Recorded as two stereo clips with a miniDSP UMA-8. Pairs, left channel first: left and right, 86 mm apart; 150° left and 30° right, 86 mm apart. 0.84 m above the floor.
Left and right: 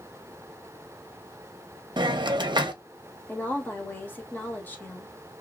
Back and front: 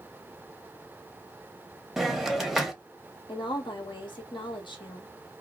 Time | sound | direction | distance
2.0 | a hiss | 120° right | 0.6 m
3.3 | a woman speaking | 155° left | 1.2 m